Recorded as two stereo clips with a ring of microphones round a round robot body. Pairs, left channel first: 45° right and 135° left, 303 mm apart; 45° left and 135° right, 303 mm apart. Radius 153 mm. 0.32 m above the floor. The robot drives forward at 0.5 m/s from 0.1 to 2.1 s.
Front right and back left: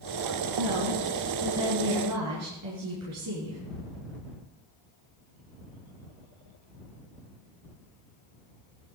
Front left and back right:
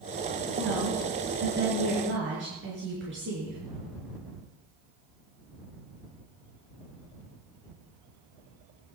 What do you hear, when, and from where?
0.6 s a woman speaking: 170° left, 4 m